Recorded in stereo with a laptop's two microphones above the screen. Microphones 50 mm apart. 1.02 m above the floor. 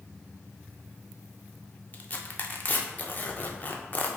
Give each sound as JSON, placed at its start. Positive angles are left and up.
{"t": 1.9, "sound": "tearing paper", "side_deg": 30, "distance_m": 0.6}